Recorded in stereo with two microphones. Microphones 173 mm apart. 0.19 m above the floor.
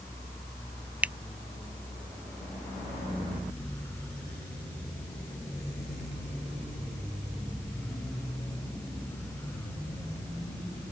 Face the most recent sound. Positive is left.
turn(degrees=-10)  # may be behind; listen again after turning